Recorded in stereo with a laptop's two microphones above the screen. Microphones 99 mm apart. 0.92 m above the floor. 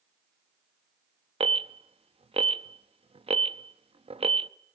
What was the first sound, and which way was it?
An alarm, 80° right.